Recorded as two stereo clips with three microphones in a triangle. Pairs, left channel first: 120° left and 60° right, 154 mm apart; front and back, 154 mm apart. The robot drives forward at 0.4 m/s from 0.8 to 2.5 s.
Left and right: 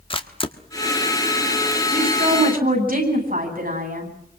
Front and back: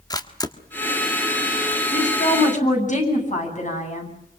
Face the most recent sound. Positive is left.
turn(degrees=-40)